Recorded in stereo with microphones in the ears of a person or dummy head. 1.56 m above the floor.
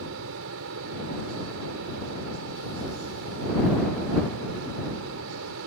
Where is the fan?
80° right.